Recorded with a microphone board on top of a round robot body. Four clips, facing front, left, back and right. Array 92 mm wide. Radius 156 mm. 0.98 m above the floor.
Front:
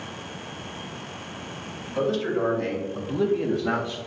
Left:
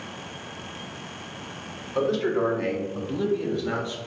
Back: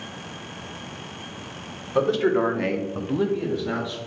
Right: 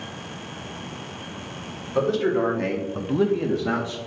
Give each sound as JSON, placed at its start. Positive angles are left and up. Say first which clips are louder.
{"t": 1.9, "sound": "a man speaking", "louder": "right 2 dB, back 4 dB", "azimuth_deg": 180, "distance_m": 1.5}